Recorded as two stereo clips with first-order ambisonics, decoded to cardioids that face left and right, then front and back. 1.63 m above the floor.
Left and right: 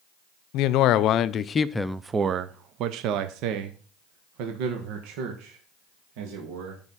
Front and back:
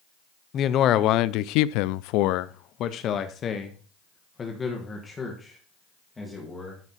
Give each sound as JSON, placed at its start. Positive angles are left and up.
{"t": 0.5, "sound": "a man speaking", "azimuth_deg": 55, "distance_m": 0.8}